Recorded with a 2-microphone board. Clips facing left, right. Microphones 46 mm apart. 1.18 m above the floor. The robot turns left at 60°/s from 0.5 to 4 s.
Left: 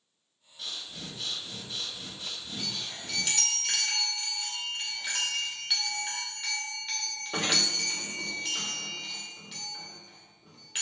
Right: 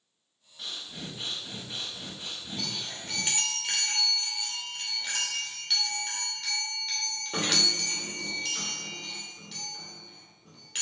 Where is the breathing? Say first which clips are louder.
Right 1 dB; 15° right, 1.1 m; by 3.6 s 165° left, 1.1 m.